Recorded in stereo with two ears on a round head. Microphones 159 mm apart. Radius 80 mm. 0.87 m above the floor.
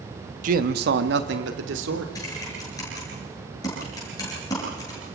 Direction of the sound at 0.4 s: 45° right (ahead or behind).